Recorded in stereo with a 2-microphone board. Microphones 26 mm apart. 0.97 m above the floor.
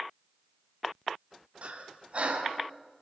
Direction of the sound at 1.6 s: 50° right (ahead or behind).